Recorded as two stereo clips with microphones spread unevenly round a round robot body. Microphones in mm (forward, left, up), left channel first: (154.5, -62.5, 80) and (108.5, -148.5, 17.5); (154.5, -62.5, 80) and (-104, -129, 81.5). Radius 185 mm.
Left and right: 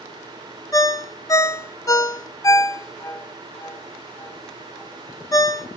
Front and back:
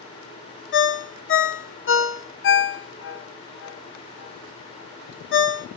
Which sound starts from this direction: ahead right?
A ringtone, at 0.7 s.